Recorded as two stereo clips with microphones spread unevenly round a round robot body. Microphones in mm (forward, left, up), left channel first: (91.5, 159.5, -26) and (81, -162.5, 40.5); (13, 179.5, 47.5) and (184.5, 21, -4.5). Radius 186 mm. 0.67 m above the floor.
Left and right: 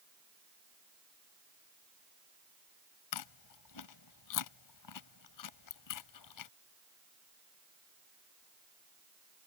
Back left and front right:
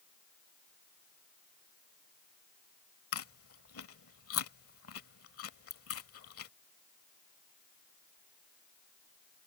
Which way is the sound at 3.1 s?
120° left.